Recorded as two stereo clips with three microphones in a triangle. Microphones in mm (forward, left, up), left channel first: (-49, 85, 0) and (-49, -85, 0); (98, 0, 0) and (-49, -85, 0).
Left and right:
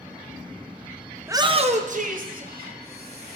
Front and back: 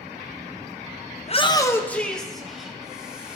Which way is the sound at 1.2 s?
10° right.